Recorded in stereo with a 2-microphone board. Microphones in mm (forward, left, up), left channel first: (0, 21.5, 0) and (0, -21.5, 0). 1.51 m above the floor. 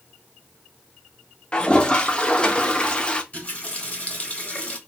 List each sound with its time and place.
1.5 s a toilet flushing: 25° left (ahead or behind), 0.6 m
3.3 s a running tap: 30° left (ahead or behind), 1.2 m